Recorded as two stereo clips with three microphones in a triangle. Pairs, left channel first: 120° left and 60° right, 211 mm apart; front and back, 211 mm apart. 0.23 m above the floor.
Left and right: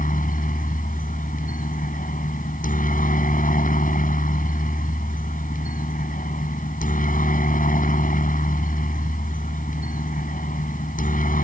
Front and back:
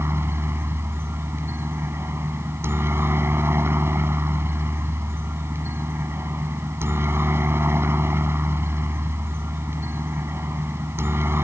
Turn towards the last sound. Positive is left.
turn(degrees=105)